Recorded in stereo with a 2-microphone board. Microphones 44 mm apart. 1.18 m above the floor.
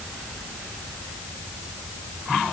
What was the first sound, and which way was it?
Only background noise.